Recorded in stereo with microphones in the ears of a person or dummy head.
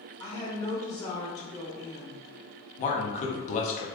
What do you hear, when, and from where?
0.2 s a woman speaking: 20° left (ahead or behind), 1.6 m
2.8 s a man speaking: 45° left (ahead or behind), 0.8 m